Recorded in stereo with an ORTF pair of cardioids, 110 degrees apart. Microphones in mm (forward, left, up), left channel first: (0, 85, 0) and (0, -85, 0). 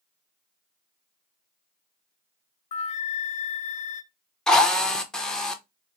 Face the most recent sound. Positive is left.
turn(degrees=5)